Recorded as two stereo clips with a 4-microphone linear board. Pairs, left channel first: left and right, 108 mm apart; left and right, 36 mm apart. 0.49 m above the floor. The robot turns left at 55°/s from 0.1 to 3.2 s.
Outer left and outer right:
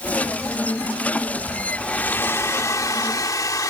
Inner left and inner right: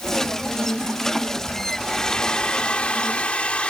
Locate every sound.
1.8 s a hair dryer: 165° left; by 3.7 s 85° left